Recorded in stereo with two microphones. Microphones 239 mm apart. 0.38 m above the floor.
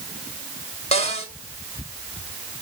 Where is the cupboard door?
30° left (ahead or behind), 1.9 m.